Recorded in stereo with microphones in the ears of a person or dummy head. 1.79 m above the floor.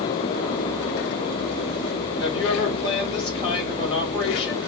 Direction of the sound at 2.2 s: 30° left (ahead or behind).